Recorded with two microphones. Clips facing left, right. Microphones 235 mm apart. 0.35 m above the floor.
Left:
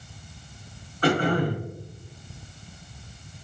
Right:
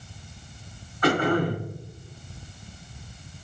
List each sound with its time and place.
1.0 s throat clearing: 30° left (ahead or behind), 1.7 m